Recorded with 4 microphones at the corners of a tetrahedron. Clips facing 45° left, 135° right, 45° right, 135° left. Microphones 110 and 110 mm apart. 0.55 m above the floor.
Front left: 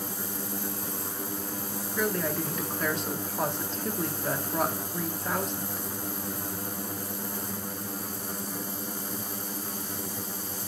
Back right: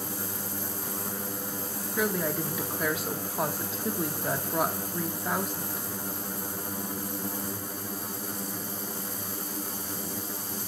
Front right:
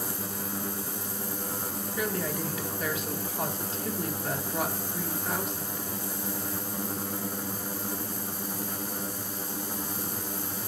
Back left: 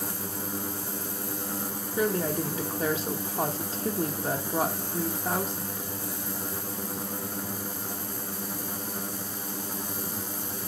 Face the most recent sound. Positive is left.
turn(degrees=145)